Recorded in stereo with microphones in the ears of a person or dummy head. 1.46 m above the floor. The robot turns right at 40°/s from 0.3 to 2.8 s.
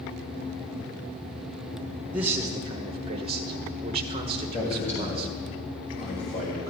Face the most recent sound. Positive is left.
turn(degrees=40)  # may be behind; listen again after turning